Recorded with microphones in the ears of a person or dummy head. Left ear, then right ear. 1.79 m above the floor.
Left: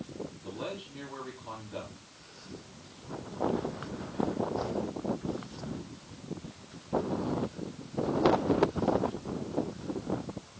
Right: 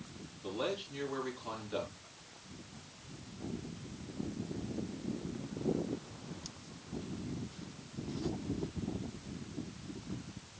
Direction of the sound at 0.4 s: 70° right (ahead or behind).